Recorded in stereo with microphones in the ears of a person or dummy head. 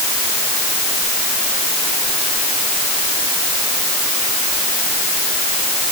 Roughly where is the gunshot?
No gunshot in this recording.